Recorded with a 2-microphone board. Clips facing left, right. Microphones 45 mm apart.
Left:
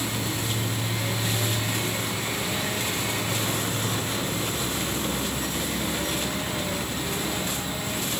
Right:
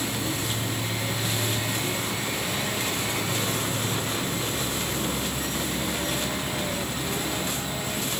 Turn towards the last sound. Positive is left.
turn(degrees=-5)  # may be behind; listen again after turning